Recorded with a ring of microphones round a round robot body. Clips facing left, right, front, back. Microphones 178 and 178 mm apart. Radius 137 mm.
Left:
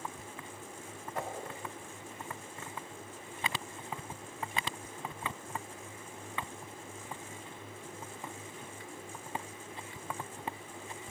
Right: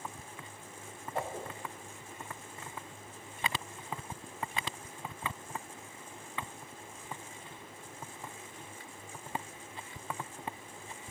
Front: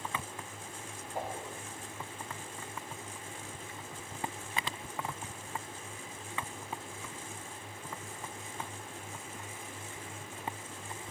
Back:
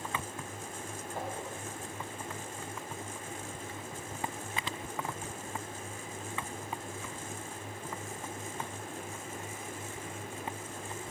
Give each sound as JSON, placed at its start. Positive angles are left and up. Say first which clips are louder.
{"t": 1.1, "sound": "a whoosh", "louder": "right 2 dB, front 1 dB", "azimuth_deg": -60, "distance_m": 1.4}